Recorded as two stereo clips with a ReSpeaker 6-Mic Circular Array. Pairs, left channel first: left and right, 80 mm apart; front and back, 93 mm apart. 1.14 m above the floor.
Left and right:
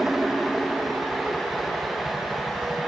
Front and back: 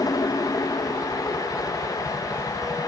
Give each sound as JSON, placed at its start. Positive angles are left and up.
{"t": 0.0, "sound": "a helicopter", "azimuth_deg": -10}